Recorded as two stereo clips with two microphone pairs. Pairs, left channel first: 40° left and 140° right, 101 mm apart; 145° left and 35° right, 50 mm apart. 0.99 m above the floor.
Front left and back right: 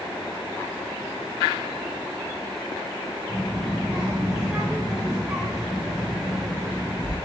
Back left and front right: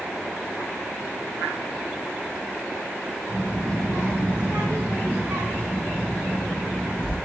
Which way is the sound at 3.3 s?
55° right.